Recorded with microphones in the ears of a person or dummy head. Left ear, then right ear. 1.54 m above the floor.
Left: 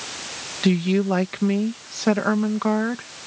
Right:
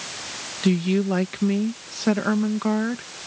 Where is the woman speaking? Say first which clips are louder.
Left 2 dB; 25° left (ahead or behind).